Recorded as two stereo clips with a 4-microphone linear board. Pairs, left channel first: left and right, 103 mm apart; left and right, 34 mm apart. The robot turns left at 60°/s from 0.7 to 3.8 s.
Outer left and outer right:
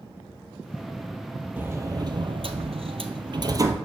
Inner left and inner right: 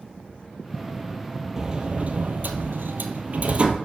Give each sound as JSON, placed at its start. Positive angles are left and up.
{"t": 1.6, "sound": "a sliding door", "azimuth_deg": -20, "distance_m": 0.9}